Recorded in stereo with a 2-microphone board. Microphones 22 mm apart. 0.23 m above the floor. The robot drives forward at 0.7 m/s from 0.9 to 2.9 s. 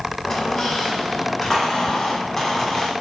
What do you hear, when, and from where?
0.2 s a squeak: 30° left (ahead or behind), 5 m; by 2.9 s 25° left (ahead or behind), 6.5 m